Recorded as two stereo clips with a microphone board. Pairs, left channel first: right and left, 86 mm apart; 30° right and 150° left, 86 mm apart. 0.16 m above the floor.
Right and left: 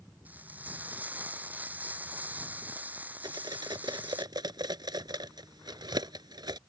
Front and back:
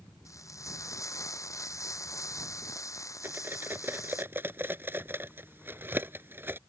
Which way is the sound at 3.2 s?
90° left.